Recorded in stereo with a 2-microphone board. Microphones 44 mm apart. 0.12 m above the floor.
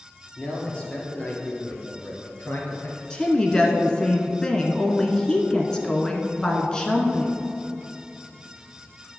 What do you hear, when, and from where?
0.4 s a man speaking: 25° left (ahead or behind), 2.5 m; by 3.0 s 50° left (ahead or behind), 1.8 m
3.1 s a woman speaking: 20° left (ahead or behind), 1.1 m